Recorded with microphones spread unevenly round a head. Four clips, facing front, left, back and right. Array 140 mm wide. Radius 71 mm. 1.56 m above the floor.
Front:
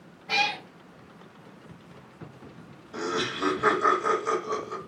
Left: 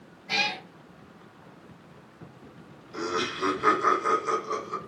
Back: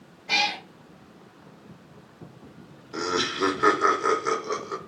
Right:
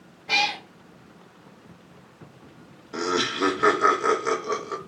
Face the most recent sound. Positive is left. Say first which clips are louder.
# right 4 dB, back 2 dB
turn(degrees=-120)